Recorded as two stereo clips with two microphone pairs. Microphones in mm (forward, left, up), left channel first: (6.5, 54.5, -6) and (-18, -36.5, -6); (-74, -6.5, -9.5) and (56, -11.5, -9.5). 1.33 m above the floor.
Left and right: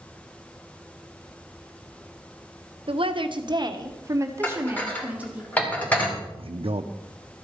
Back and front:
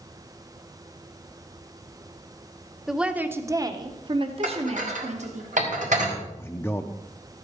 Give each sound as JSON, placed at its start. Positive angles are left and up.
{"t": 2.9, "sound": "a woman speaking", "azimuth_deg": -90, "distance_m": 0.9}
{"t": 4.4, "sound": "dishes clattering", "azimuth_deg": 0, "distance_m": 2.5}
{"t": 6.4, "sound": "a man speaking", "azimuth_deg": -110, "distance_m": 0.6}